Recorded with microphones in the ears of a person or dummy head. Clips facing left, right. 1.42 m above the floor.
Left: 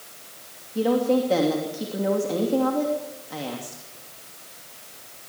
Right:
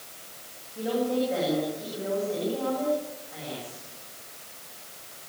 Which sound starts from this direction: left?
A woman speaking, at 0.8 s.